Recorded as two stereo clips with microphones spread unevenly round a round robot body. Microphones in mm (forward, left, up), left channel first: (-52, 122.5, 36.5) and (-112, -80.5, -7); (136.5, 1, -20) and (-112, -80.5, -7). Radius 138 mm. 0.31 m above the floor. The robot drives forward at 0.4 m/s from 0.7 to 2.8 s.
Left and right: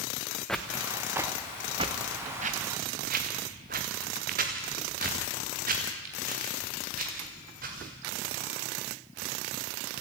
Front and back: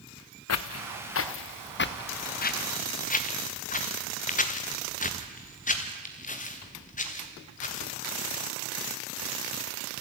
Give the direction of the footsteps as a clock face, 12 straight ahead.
12 o'clock.